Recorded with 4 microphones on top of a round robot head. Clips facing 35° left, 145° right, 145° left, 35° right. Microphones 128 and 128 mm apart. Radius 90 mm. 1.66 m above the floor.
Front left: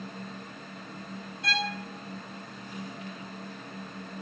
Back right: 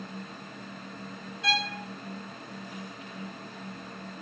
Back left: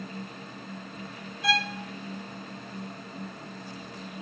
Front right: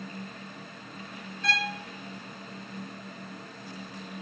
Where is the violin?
135° right, 0.7 m.